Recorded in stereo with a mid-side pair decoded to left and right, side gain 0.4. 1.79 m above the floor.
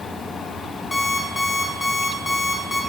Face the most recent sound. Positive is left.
turn(degrees=20)